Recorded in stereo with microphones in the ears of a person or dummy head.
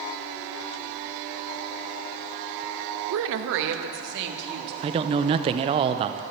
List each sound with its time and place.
3.1 s a woman speaking: 75° right (ahead or behind), 0.8 m; by 4.7 s 55° right (ahead or behind), 2.0 m
4.8 s a man speaking: 30° right (ahead or behind), 0.7 m